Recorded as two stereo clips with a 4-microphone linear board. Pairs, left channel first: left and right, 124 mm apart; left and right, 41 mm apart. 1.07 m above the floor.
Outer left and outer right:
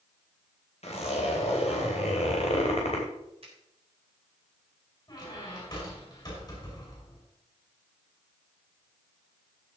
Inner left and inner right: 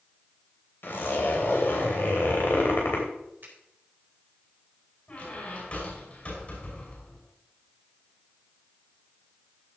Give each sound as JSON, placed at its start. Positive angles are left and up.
{"t": 0.8, "sound": "a zipper", "side_deg": 60, "distance_m": 3.0}
{"t": 3.4, "sound": "a finger snap", "side_deg": -50, "distance_m": 4.0}
{"t": 5.1, "sound": "a squeak", "side_deg": 35, "distance_m": 5.5}